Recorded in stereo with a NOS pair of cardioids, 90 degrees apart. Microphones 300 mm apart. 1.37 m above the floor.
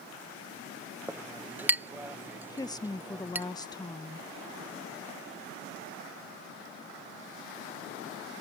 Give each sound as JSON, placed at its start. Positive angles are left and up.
{"t": 1.1, "sound": "a clink", "azimuth_deg": -5}
{"t": 2.5, "sound": "a woman speaking", "azimuth_deg": 15}